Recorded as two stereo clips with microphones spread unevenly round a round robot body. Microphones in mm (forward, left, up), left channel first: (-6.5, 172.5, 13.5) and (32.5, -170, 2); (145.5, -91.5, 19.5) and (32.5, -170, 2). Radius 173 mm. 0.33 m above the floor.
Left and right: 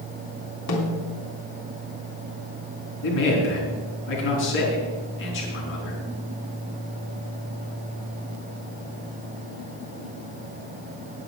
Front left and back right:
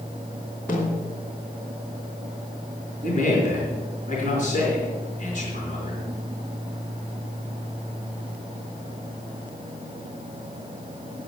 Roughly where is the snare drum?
Behind left.